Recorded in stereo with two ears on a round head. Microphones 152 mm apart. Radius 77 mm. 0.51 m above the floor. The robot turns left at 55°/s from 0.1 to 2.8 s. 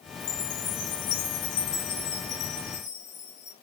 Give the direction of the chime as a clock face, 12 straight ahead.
7 o'clock.